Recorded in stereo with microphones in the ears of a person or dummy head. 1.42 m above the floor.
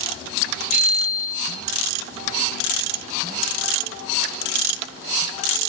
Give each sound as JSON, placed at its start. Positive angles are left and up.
{"t": 0.7, "sound": "a bicycle bell", "side_deg": -15, "distance_m": 7.5}